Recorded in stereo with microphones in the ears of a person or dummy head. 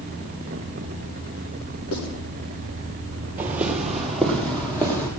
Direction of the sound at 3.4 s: 10° right (ahead or behind).